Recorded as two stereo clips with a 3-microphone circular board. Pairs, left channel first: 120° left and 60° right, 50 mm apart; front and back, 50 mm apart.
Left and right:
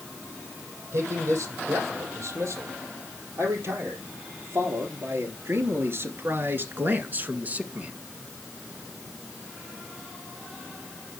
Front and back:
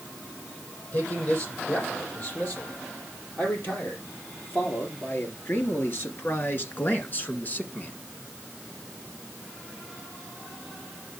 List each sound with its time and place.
0.9 s a man speaking: 40° right, 6 m; by 7.9 s 20° right, 1.6 m